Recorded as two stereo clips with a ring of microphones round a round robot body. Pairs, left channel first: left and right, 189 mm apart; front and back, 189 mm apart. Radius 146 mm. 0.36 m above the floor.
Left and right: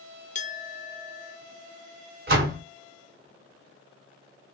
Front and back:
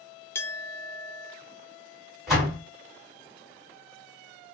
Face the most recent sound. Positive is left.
turn(degrees=-90)